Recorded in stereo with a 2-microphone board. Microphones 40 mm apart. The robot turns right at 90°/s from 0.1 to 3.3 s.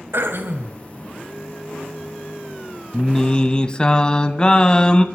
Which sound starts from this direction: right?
Throat clearing, at 0.1 s.